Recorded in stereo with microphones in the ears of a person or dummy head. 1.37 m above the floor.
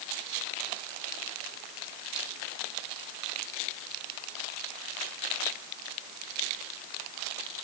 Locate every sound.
Only background noise.